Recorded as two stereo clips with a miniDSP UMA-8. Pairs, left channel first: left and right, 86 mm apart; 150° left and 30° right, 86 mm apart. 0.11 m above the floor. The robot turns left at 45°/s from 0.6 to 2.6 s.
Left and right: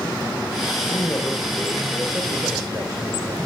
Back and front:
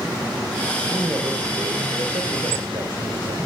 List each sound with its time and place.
0.8 s a man speaking: 40° left, 5.5 m; by 3.4 s 40° right, 5.5 m